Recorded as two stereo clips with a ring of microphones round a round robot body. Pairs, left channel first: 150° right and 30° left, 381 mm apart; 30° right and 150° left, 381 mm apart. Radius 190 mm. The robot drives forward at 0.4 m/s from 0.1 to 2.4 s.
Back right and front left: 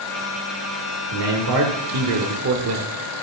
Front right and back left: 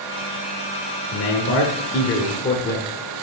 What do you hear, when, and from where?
1.1 s a man speaking: 15° left, 1.5 m; by 2.9 s 25° left, 1.1 m